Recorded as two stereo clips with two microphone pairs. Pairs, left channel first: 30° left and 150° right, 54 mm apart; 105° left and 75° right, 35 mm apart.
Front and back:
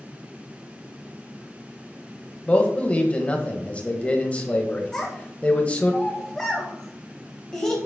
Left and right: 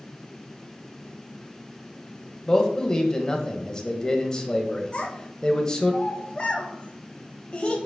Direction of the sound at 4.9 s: 95° left.